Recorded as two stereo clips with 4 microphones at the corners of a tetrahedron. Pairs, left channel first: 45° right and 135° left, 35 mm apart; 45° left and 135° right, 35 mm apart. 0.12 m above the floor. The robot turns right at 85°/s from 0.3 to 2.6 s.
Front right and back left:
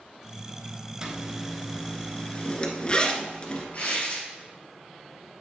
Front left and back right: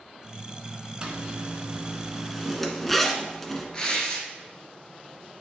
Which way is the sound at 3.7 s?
20° right.